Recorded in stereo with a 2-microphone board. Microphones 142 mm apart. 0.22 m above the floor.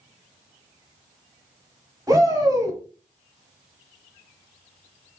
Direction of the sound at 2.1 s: 25° right (ahead or behind).